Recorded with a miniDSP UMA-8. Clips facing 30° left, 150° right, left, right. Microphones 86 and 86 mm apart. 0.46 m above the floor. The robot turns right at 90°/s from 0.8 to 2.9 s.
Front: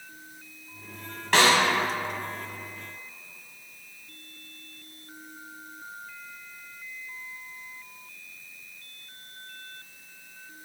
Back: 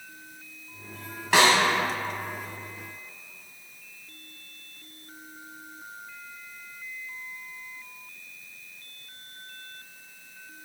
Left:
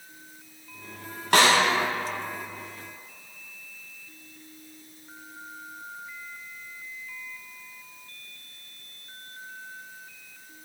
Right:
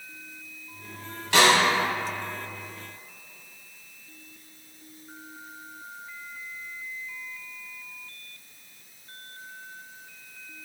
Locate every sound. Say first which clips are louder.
1.3 s a snare drum: back 1 dB, even; 125° left, 0.8 m; by 1.6 s 150° left, 0.8 m